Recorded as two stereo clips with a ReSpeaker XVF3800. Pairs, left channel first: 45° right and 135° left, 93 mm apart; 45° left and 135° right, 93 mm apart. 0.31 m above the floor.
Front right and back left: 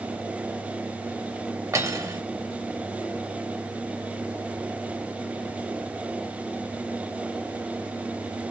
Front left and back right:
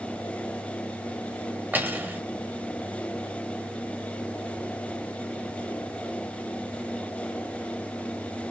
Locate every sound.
1.7 s cutlery clinking: 165° left, 0.6 m